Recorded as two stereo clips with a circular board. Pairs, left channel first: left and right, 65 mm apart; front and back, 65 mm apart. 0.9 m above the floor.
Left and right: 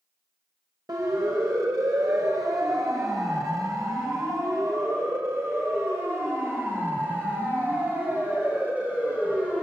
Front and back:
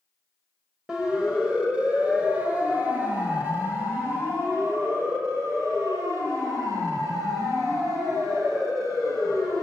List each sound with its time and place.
0.9 s a siren: 100° right, 5.5 m; by 9.6 s 160° right, 8 m